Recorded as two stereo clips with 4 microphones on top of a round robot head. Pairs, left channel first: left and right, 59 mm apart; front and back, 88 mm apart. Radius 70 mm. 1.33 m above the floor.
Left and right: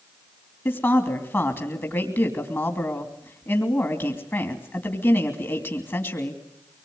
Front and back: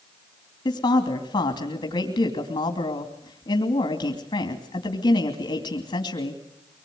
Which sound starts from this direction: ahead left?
A woman speaking, at 0.7 s.